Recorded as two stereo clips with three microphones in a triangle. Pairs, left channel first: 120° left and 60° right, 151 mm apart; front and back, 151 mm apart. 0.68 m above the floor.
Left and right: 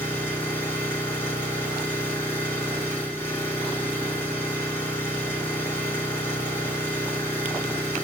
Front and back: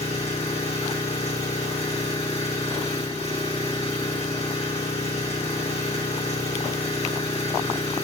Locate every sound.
0.0 s an engine running: 45° left, 3.5 m